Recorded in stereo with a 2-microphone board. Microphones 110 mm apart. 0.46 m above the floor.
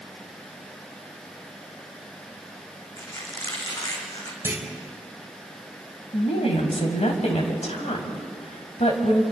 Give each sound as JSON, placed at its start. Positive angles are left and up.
{"t": 3.0, "sound": "a squeak", "side_deg": 30, "distance_m": 3.5}
{"t": 4.4, "sound": "a clunk", "side_deg": -20, "distance_m": 2.5}
{"t": 6.1, "sound": "a woman speaking", "side_deg": 65, "distance_m": 3.5}